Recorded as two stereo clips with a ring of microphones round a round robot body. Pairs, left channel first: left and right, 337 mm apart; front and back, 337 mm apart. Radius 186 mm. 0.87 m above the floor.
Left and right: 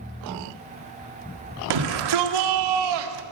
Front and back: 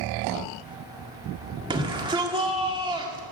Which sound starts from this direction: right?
A shout, at 1.7 s.